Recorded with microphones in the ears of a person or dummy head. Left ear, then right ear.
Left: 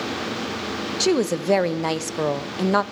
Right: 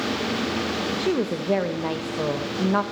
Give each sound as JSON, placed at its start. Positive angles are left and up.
{"t": 1.0, "sound": "a woman speaking", "side_deg": 80, "distance_m": 0.8}